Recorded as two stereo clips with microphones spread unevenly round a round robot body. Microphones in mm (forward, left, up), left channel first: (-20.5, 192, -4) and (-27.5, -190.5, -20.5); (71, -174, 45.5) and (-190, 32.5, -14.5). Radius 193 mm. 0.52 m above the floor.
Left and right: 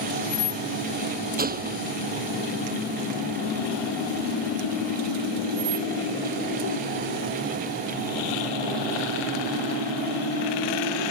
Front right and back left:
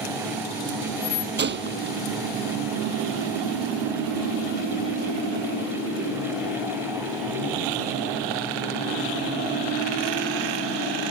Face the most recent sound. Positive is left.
turn(degrees=-160)